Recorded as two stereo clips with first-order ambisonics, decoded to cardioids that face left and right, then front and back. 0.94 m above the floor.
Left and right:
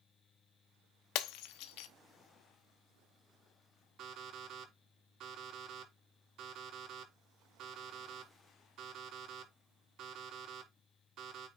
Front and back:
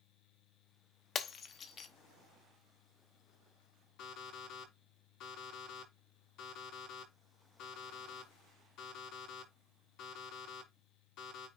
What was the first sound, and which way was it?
Breaking glass, 65° left.